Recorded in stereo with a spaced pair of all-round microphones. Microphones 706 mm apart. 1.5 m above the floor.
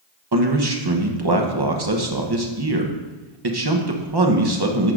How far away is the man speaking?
About 1.0 m.